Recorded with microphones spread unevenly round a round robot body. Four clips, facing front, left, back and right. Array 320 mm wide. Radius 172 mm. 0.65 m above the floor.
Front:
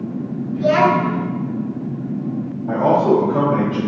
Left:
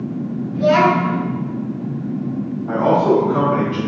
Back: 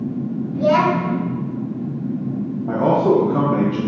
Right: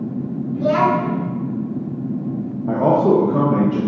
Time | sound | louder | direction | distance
0.5 | a child speaking | left 3 dB, front 2 dB | 175° right | 1.9 m
2.7 | a man speaking | even, front 1 dB | 130° right | 0.8 m